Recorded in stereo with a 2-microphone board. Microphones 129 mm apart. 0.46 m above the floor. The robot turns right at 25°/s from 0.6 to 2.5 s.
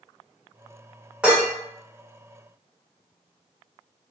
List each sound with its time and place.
1.2 s dishes clattering: 10° right (ahead or behind), 0.9 m; by 1.5 s 15° right (ahead or behind), 0.9 m